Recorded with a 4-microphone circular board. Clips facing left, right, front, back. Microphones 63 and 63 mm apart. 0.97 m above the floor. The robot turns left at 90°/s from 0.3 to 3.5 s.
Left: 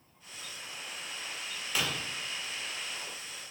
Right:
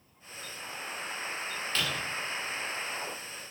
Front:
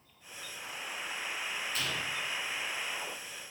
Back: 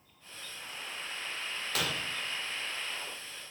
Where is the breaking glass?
170° left, 1.9 m; by 2.0 s 145° left, 1.9 m.